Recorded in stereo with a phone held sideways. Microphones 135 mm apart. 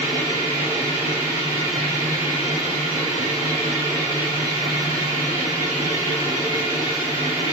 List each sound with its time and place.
0.0 s a machine running: 60° left (ahead or behind), 1.7 m